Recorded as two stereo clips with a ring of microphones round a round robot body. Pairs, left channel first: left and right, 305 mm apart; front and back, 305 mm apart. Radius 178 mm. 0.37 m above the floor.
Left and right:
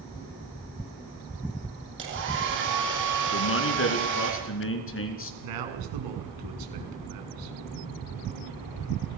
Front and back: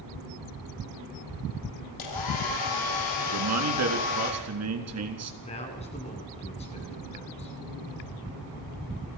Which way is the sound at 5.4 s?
75° right.